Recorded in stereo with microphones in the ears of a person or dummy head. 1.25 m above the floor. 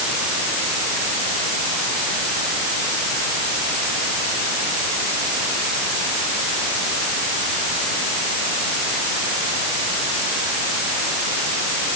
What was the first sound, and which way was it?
Only background noise.